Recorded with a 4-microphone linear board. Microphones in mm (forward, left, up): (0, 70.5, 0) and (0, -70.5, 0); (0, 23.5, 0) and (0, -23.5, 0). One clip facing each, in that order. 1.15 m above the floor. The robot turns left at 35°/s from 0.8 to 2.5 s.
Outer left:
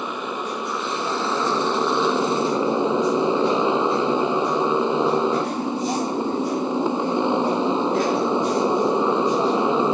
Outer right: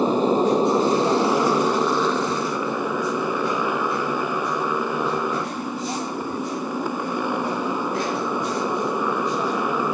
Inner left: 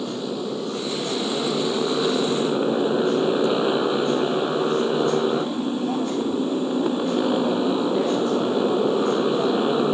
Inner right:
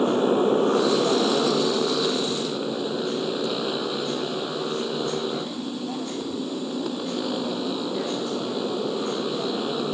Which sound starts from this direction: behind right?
A motorcycle, at 0.0 s.